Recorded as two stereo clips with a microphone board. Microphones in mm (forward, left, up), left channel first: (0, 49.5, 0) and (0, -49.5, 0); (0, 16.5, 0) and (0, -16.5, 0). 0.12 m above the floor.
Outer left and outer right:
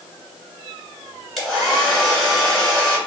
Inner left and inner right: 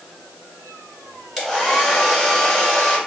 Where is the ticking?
No ticking in this recording.